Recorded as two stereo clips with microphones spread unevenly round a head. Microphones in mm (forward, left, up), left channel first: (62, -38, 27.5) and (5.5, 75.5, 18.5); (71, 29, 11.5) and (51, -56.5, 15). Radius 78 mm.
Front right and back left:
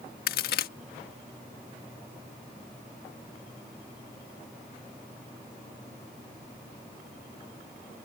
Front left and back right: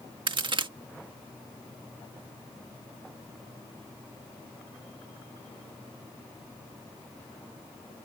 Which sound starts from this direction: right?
A crack, at 0.3 s.